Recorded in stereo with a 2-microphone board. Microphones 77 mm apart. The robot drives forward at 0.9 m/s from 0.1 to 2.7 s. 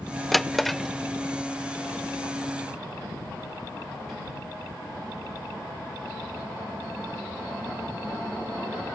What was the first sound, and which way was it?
A drawer, centre (ahead or behind).